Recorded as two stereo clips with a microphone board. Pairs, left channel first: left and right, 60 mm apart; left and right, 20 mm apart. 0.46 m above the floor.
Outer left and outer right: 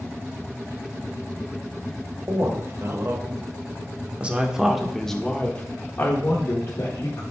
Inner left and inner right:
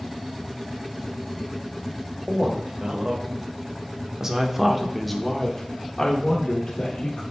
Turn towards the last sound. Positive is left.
turn(degrees=55)  # may be behind; listen again after turning